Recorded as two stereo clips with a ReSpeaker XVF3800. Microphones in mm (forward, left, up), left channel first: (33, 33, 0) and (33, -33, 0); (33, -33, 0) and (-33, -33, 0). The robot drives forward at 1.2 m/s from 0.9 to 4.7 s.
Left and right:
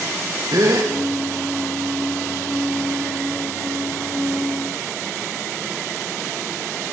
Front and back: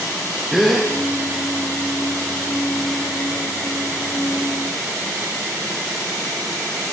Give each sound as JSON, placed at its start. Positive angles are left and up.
{"t": 0.5, "sound": "a gasp", "azimuth_deg": -90, "distance_m": 8.5}